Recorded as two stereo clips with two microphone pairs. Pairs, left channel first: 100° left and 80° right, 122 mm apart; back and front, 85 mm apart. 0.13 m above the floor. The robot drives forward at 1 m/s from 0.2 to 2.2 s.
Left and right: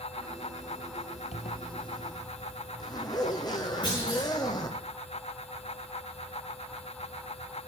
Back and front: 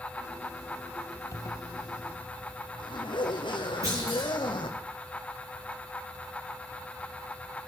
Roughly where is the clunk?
Ahead left.